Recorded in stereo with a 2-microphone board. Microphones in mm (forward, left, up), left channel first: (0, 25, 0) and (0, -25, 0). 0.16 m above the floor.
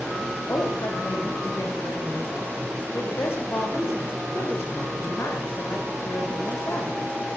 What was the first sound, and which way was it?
A woman speaking, 55° left (ahead or behind).